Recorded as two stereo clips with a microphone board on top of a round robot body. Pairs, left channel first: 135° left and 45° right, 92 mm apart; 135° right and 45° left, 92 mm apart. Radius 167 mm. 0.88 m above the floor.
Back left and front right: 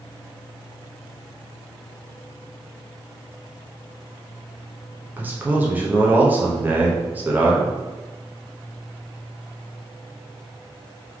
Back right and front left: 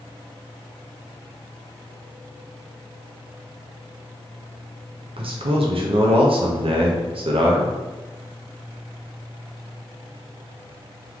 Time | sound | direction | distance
5.2 | a man speaking | 25° left | 0.8 m